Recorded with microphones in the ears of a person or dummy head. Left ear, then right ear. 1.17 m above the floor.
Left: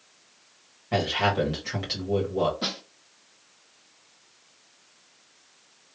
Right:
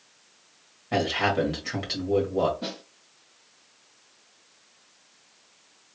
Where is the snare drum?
45° left (ahead or behind), 0.7 m.